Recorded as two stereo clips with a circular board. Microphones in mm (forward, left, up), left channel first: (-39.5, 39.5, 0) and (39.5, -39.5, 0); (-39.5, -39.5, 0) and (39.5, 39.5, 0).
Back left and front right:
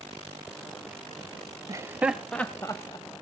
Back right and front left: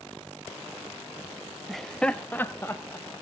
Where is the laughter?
45° right, 1.0 m; by 3.2 s 165° left, 1.4 m.